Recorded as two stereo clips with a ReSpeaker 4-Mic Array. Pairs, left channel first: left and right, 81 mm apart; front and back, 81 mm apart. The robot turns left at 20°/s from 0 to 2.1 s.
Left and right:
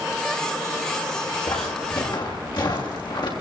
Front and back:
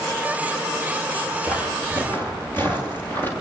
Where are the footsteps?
75° left, 8.5 m; by 3.3 s 65° left, 7.5 m.